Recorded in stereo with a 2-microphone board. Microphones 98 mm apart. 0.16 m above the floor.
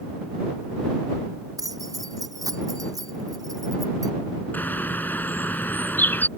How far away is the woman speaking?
I don't hear a woman speaking.